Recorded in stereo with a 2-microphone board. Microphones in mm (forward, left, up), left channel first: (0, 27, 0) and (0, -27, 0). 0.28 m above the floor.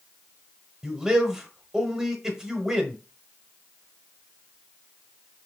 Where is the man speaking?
10° right (ahead or behind), 1.0 m.